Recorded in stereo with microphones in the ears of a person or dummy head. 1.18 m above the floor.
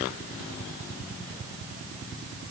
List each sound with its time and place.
Only background noise.